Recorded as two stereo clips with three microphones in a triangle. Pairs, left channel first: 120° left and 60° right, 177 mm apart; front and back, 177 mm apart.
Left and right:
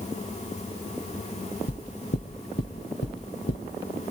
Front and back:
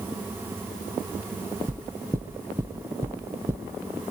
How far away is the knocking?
About 1.8 m.